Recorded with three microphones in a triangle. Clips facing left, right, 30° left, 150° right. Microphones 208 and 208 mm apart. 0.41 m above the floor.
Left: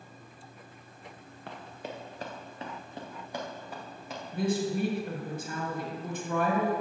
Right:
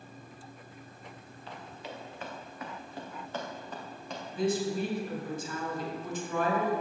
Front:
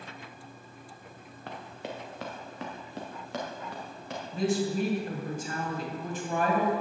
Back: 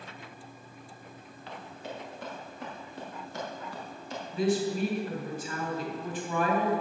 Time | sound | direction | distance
1.5 | running footsteps | 65° left | 2 m
4.3 | a woman speaking | 70° left | 2.5 m